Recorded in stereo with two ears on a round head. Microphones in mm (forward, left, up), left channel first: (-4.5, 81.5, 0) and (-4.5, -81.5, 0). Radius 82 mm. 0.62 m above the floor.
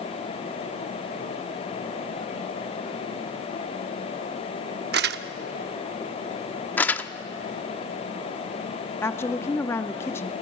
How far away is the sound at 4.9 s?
About 0.8 m.